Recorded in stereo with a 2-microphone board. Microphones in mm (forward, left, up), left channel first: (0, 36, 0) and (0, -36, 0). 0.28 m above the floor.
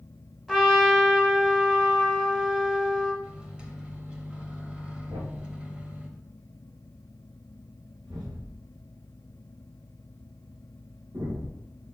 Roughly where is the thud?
Right.